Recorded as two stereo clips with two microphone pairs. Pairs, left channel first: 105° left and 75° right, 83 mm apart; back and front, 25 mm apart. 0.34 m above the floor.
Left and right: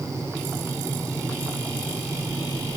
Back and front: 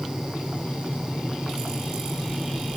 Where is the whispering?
I don't hear whispering.